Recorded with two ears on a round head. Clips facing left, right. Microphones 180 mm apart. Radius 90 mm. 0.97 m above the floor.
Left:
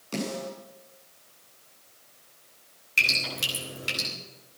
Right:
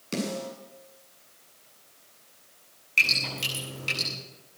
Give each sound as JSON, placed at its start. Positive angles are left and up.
{"t": 0.1, "sound": "a snare drum", "side_deg": -25, "distance_m": 9.0}
{"t": 3.0, "sound": "dripping", "side_deg": 10, "distance_m": 9.5}